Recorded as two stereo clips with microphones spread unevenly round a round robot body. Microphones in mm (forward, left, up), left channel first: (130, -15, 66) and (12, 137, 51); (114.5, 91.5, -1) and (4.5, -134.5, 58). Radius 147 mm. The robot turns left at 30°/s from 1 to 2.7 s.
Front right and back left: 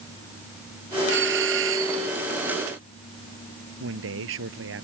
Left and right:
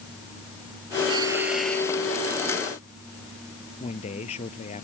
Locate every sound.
1.1 s a doorbell: 170° left; by 2.1 s 140° left
3.8 s a man speaking: 135° left